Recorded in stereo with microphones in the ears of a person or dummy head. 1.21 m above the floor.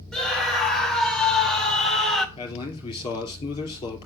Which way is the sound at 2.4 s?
25° left (ahead or behind).